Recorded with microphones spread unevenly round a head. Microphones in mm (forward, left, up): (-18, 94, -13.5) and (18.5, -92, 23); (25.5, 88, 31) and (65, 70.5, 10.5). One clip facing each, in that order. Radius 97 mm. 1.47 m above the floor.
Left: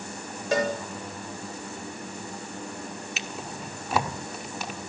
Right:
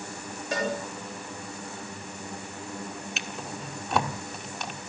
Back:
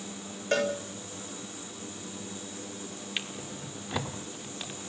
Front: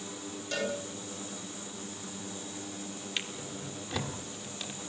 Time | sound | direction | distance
0.5 | a cowbell | 125° left | 7.5 m
3.2 | a drawer | 160° right | 1.3 m